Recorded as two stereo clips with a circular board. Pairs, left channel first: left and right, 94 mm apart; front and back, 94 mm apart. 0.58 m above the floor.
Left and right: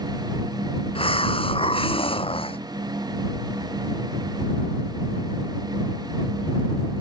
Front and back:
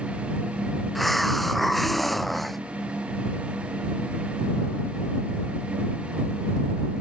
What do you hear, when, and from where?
0.9 s a hiss: 90° left